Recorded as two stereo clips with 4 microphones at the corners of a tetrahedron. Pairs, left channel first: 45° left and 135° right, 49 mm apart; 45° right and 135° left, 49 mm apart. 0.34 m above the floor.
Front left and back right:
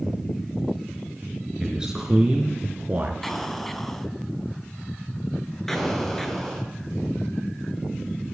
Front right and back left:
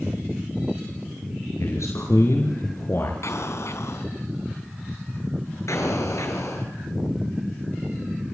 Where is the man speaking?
60° right, 5 m; by 3.1 s 80° right, 4 m.